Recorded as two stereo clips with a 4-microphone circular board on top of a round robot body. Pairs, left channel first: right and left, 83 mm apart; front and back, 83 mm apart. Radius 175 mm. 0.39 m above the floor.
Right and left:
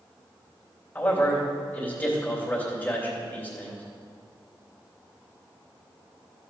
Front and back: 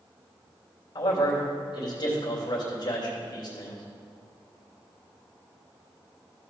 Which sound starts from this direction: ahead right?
A man speaking, at 0.9 s.